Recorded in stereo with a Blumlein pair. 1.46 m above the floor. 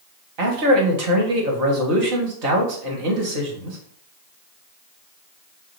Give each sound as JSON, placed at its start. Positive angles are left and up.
{"t": 0.4, "sound": "a man speaking", "azimuth_deg": -45, "distance_m": 1.8}